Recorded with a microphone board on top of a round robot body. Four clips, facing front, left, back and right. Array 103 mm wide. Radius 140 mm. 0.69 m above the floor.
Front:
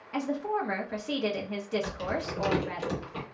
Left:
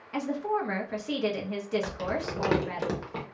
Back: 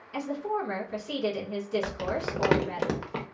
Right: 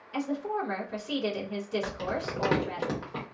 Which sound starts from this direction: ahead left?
A woman speaking, at 0.1 s.